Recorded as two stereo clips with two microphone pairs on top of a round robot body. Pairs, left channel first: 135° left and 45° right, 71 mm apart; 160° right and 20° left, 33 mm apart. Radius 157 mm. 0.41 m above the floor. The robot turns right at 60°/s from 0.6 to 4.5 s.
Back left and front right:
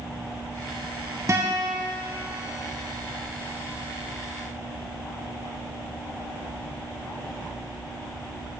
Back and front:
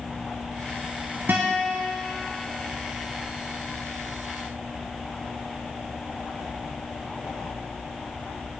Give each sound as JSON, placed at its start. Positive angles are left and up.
{"t": 1.3, "sound": "a guitar", "azimuth_deg": 5, "distance_m": 0.5}